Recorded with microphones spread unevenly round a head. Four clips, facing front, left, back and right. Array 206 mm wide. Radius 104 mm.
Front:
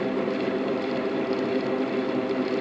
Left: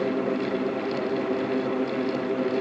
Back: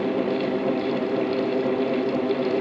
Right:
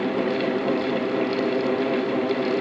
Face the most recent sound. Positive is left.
No sound to turn to.